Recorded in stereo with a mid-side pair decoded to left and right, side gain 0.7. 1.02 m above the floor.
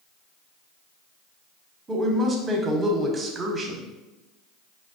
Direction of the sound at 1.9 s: 25° right.